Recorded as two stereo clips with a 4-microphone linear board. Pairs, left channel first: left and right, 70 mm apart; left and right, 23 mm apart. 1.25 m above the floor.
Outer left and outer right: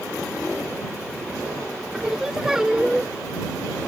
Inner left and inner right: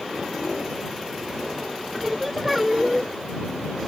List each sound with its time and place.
1.9 s singing: 5° right (ahead or behind)